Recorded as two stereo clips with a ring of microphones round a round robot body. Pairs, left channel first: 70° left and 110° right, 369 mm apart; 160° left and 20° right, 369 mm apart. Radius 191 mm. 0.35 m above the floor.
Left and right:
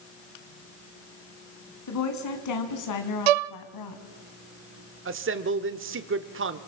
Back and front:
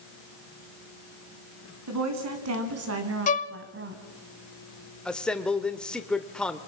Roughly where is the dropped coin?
No dropped coin in this recording.